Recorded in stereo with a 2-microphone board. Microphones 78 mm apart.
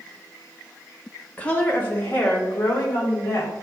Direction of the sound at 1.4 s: 20° left (ahead or behind).